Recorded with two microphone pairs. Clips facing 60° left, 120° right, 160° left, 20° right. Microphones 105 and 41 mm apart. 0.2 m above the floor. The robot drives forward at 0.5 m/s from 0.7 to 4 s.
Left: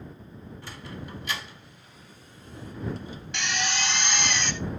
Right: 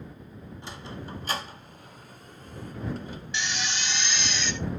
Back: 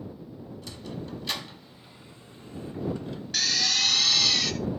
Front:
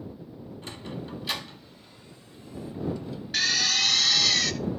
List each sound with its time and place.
0.6 s a sliding door: 60° right, 0.7 m; by 3.2 s 160° right, 1.2 m
3.3 s a drill: 55° left, 1.1 m; by 4.5 s 75° left, 1.0 m